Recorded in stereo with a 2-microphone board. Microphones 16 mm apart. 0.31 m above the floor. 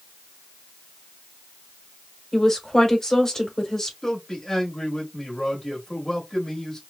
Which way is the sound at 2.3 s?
30° left (ahead or behind).